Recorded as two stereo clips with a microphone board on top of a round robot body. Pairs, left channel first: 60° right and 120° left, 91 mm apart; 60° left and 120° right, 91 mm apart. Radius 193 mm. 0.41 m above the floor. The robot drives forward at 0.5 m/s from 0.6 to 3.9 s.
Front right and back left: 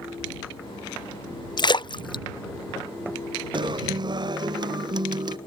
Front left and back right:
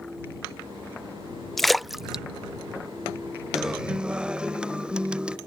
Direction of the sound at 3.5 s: 155° left.